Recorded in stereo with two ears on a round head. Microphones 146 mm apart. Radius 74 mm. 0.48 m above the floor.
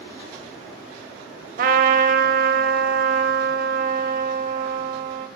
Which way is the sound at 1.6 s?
50° right (ahead or behind).